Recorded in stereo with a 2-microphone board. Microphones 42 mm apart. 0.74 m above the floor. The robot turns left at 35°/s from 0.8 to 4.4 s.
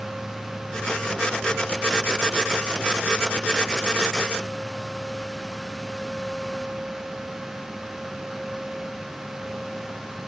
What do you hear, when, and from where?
Only background noise.